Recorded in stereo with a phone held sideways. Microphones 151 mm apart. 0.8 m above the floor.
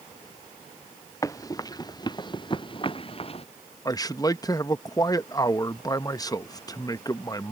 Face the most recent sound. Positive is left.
turn(degrees=25)  # may be behind; listen again after turning